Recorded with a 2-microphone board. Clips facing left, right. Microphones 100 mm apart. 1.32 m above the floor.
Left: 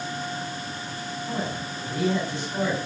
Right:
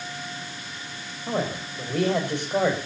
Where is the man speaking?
75° right (ahead or behind), 5 m.